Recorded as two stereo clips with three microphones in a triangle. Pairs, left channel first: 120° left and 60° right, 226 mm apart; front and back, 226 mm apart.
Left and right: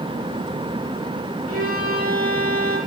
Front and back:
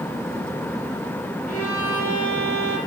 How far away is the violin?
About 9.5 m.